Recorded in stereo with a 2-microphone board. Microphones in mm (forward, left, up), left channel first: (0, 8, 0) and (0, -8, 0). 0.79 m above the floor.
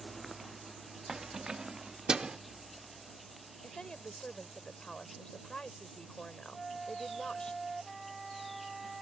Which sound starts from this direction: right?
Keys jangling, at 1.1 s.